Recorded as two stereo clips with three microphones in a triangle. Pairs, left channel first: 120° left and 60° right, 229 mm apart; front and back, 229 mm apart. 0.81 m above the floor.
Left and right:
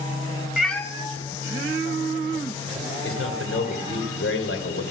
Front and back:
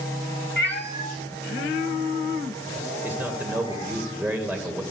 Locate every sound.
0.6 s a cat meowing: 25° left, 0.9 m; by 4.0 s 70° left, 5 m
3.0 s a man speaking: 100° left, 2.5 m